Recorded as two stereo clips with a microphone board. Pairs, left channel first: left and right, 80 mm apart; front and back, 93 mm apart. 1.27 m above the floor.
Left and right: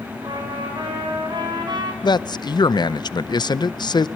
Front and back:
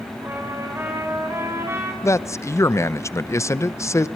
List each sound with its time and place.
0.2 s a trumpet: 115° right, 4.5 m
2.0 s a man speaking: 60° left, 0.6 m